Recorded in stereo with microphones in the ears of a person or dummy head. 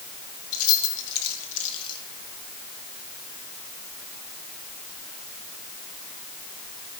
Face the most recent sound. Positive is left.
turn(degrees=25)  # may be behind; listen again after turning